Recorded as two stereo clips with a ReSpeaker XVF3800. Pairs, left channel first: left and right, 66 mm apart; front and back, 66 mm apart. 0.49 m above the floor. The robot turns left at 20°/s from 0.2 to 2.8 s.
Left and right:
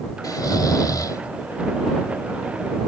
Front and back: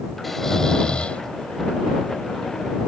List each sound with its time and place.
0.2 s snoring: 90° left; by 1.2 s 70° left